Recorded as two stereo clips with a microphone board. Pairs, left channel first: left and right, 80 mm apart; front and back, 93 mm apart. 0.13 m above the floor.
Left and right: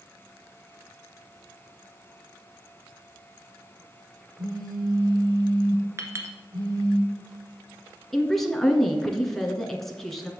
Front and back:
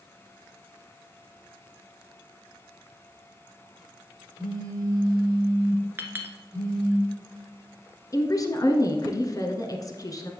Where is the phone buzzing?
130° right, 3.5 m.